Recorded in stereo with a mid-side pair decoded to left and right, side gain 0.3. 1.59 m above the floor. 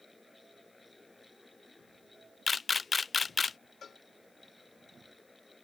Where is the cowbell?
60° left.